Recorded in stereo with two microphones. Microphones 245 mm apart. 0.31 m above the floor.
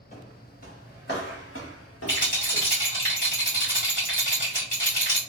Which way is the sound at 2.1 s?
35° left (ahead or behind).